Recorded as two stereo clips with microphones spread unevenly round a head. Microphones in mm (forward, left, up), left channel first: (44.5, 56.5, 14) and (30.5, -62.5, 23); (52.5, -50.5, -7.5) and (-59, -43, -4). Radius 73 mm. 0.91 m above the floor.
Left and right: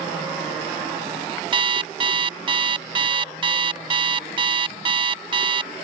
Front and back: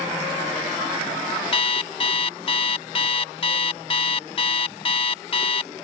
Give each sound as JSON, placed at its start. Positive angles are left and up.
{"t": 1.5, "sound": "an alarm clock", "azimuth_deg": -45}